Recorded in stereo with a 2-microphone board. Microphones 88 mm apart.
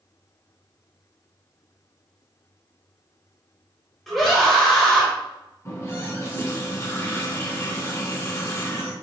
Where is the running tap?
35° left (ahead or behind), 2 m.